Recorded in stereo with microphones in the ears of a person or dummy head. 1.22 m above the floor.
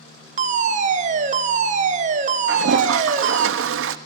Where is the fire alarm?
35° right (ahead or behind), 1.2 m.